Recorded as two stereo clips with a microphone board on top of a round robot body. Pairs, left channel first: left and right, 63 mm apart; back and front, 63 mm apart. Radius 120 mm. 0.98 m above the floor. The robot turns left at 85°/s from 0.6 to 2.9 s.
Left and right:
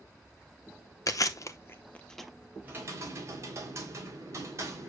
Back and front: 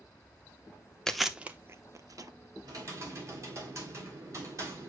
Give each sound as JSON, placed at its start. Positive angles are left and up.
{"t": 1.1, "sound": "chewing", "azimuth_deg": 100, "distance_m": 1.1}
{"t": 2.6, "sound": "typing on a keyboard", "azimuth_deg": -25, "distance_m": 3.0}